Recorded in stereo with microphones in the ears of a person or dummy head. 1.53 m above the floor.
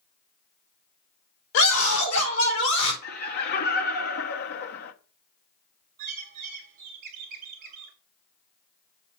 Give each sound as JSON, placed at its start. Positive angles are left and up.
{"t": 1.5, "sound": "a scream", "side_deg": 85, "distance_m": 3.0}
{"t": 3.0, "sound": "laughter", "side_deg": 50, "distance_m": 1.3}
{"t": 6.0, "sound": "a bird", "side_deg": -50, "distance_m": 1.4}